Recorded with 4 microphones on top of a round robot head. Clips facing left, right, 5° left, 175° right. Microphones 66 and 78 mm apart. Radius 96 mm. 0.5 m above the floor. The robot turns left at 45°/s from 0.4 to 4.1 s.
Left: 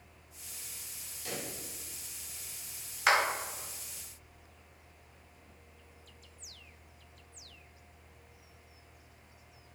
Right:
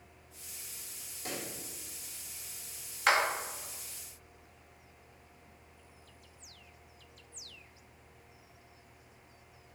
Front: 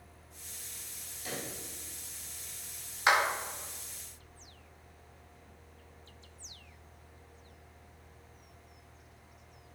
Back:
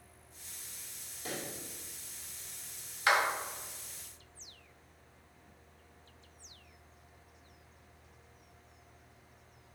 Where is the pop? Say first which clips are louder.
Even, even; 135° right, 1.1 m; by 1.5 s 145° right, 1.1 m.